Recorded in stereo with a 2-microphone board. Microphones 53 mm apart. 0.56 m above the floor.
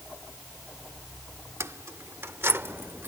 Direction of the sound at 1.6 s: 60° right (ahead or behind).